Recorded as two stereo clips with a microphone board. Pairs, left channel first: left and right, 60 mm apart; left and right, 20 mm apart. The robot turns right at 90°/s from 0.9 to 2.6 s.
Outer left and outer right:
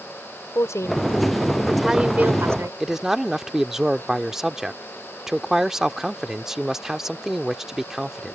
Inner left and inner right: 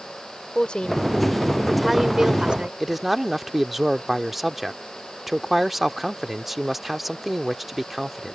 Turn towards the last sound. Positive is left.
turn(degrees=-5)  # may be behind; listen again after turning